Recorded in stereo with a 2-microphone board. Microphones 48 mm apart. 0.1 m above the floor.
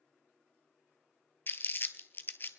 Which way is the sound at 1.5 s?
45° left (ahead or behind).